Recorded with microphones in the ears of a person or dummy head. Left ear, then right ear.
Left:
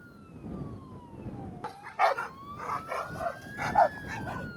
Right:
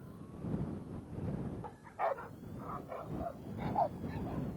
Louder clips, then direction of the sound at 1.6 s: Left 10 dB; 55° left (ahead or behind).